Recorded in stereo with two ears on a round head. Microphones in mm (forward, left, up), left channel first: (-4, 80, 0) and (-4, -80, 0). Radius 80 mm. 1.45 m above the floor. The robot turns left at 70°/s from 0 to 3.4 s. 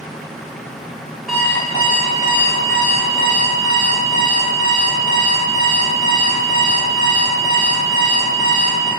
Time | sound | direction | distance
1.3 | an alarm clock | 175° right | 0.7 m